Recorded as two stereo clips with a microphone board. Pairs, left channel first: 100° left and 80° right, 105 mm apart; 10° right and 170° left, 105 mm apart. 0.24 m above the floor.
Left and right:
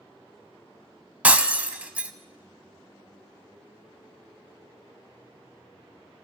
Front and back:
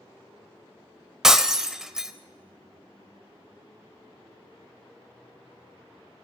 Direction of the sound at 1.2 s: 115° right.